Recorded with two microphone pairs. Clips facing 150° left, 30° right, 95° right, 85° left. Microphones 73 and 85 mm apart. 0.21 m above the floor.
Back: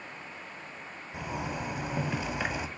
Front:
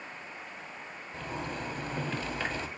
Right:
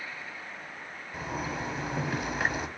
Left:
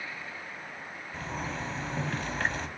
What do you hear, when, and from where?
1.1 s a zipper: 155° right, 0.9 m